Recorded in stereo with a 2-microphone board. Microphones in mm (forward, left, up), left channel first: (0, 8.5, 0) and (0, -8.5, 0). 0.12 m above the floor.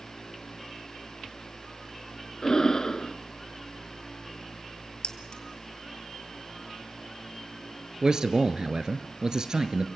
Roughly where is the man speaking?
Right.